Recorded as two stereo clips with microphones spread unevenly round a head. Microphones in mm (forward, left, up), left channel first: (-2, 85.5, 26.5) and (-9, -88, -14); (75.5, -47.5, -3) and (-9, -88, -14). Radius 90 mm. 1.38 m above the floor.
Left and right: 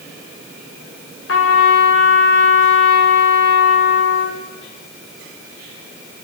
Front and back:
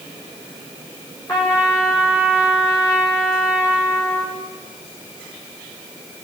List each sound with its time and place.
1.3 s a trumpet: 105° left, 7.5 m